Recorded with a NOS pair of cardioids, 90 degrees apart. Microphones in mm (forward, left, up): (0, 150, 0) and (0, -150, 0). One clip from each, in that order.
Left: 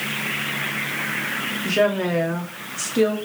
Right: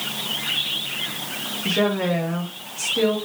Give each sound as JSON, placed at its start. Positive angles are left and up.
{"t": 1.6, "sound": "a woman speaking", "azimuth_deg": 20, "distance_m": 0.8}